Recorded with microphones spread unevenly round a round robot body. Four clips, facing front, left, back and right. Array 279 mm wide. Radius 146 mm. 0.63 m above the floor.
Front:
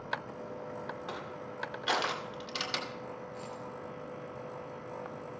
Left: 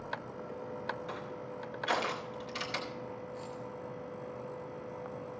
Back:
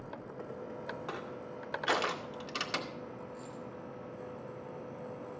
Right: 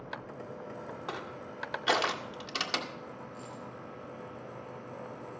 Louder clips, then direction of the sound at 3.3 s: Left 2 dB, front 2 dB; 15° left.